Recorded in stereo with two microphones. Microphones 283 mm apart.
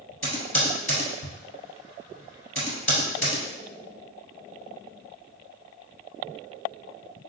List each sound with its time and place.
0.2 s typing on a keyboard: 50° left (ahead or behind), 1.5 m